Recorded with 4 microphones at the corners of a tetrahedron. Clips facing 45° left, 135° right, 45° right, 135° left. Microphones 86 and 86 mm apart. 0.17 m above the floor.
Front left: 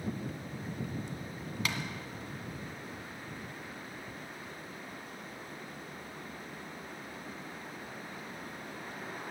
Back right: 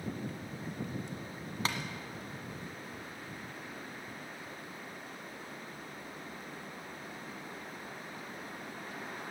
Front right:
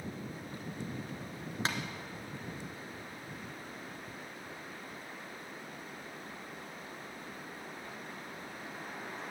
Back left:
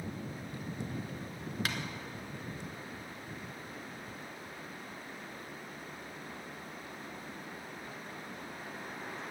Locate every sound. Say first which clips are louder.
1.6 s tapping: back right 2 dB, front right 3 dB; 95° right, 1.5 m